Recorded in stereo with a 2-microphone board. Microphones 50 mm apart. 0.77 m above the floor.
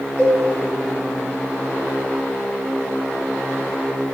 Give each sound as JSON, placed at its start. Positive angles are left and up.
{"t": 0.2, "sound": "a cowbell", "side_deg": 25, "distance_m": 1.8}